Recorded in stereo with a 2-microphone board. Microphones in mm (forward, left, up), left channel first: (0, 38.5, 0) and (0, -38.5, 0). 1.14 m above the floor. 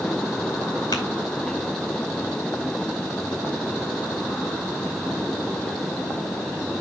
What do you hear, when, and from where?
0.9 s tapping: 60° left (ahead or behind), 2.5 m